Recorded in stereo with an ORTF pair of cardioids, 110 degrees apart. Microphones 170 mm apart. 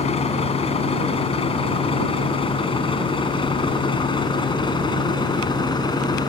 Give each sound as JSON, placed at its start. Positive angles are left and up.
{"t": 0.0, "sound": "a vehicle", "azimuth_deg": 40}